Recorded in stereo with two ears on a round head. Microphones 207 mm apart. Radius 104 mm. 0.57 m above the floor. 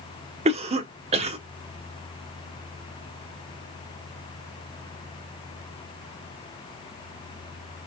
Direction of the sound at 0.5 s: 25° right (ahead or behind).